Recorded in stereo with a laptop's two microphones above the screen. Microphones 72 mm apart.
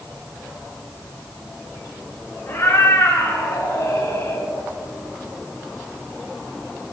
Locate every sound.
2.5 s a cat meowing: 45° left (ahead or behind), 5.5 m; by 4.5 s 65° left (ahead or behind), 3 m